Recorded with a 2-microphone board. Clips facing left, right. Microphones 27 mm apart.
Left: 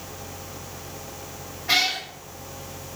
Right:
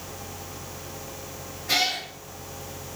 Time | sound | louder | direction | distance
1.7 | a cat meowing | left 2 dB | 30° left (ahead or behind) | 2 m